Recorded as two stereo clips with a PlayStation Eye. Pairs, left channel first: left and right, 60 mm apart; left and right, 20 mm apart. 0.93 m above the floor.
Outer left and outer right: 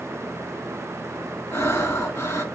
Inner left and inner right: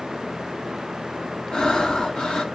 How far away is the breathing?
About 1.5 m.